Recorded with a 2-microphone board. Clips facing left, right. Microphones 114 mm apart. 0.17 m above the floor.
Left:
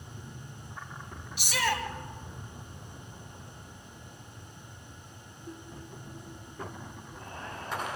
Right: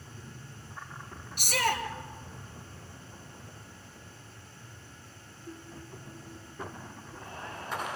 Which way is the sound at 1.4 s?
50° right (ahead or behind).